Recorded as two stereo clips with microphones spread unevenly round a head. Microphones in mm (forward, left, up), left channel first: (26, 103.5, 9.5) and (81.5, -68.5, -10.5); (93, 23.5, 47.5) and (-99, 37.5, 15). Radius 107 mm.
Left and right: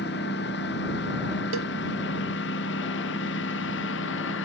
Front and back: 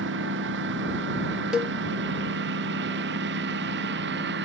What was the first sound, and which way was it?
A lawn mower, 150° left.